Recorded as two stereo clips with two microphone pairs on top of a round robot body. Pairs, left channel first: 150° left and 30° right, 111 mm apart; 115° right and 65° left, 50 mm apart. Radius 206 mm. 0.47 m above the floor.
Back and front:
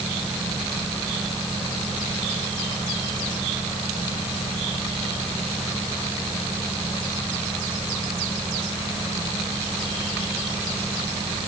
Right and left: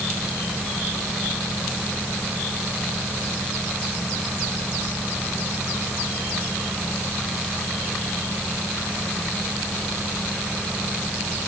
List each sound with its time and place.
Only background noise.